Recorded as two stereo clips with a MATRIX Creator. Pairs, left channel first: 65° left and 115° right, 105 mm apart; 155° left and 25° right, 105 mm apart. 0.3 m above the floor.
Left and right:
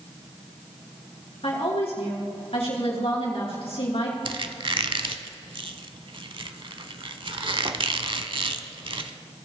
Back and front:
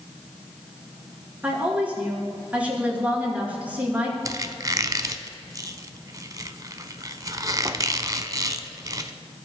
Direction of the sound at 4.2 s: 75° right.